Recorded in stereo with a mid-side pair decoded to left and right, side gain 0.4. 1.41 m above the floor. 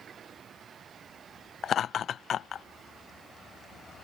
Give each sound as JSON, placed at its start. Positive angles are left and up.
{"t": 1.6, "sound": "laughter", "azimuth_deg": 65}